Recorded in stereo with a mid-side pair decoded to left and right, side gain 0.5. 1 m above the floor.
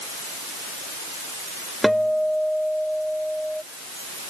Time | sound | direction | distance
1.8 | a guitar | straight ahead | ?